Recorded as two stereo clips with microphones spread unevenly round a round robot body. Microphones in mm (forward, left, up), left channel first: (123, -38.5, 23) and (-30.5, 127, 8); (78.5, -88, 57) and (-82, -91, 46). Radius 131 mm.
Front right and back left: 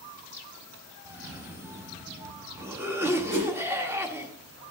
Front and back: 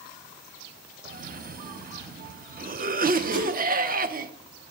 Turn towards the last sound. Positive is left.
turn(degrees=170)